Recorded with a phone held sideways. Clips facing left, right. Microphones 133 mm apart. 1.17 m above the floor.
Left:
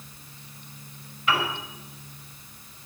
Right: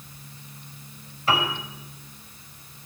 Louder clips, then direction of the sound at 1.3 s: Right 2 dB; 35° right (ahead or behind).